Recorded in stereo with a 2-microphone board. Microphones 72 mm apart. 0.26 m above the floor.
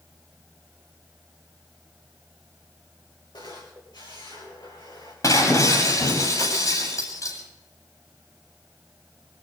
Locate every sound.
3.3 s a camera shutter: 75° left (ahead or behind), 10 m
5.2 s breaking glass: 50° left (ahead or behind), 8.5 m